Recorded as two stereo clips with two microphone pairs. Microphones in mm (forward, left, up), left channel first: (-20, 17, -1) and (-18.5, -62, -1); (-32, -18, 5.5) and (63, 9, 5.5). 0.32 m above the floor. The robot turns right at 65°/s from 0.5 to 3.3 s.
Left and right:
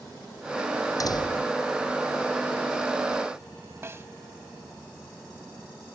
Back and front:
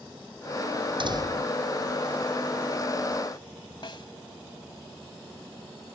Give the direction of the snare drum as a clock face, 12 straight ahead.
5 o'clock.